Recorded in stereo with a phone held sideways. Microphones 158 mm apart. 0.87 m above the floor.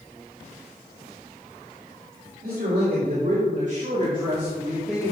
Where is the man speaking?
70° right (ahead or behind), 3.5 m; by 5.1 s 5° left (ahead or behind), 2 m.